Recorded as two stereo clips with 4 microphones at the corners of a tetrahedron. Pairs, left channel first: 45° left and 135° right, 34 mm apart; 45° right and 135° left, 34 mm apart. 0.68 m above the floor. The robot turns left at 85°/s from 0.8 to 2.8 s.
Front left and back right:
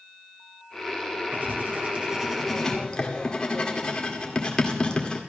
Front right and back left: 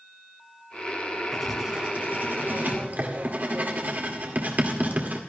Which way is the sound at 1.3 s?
130° right.